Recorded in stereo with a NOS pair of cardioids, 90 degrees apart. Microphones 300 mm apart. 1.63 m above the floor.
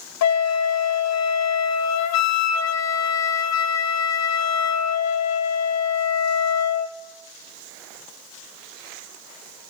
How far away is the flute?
About 1.1 m.